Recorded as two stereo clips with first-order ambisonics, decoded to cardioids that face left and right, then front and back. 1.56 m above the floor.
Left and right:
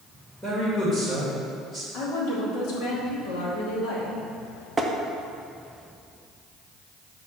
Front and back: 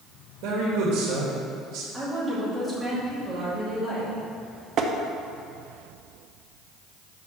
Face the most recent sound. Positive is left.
turn(degrees=-165)